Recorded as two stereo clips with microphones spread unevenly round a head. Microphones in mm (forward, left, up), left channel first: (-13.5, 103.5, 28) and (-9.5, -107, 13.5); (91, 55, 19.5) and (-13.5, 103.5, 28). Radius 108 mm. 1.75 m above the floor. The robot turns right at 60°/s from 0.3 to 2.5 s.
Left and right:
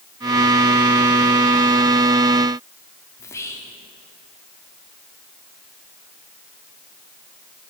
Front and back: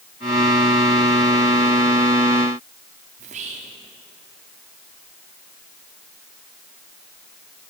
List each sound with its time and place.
3.2 s whispering: 165° left, 0.8 m